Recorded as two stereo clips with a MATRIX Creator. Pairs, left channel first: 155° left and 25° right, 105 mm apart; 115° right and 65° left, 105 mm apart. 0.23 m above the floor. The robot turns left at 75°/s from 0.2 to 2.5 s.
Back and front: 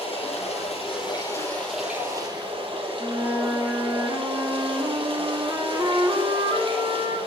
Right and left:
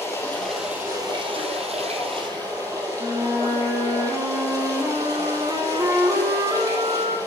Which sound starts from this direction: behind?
Running water, at 0.0 s.